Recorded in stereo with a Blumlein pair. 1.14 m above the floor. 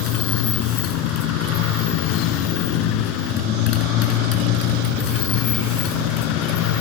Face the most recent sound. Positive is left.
turn(degrees=40)